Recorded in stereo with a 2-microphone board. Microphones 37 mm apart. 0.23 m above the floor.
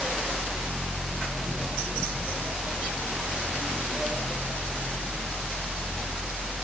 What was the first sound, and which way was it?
Only background noise.